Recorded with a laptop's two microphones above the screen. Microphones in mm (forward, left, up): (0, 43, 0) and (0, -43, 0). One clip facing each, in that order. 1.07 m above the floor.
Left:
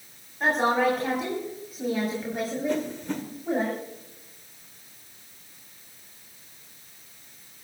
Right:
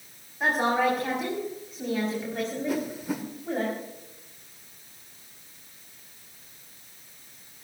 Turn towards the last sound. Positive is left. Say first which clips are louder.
# left 1 dB
turn(degrees=-10)  # may be behind; listen again after turning